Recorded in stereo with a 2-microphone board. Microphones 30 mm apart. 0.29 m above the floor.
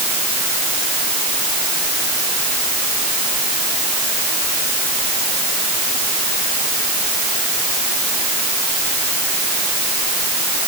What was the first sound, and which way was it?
Only background noise.